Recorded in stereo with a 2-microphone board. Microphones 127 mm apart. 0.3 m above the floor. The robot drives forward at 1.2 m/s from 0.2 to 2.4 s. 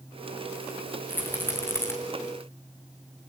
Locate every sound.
1.1 s a rattle: 15° left (ahead or behind), 6.5 m; by 1.9 s 20° left (ahead or behind), 5.5 m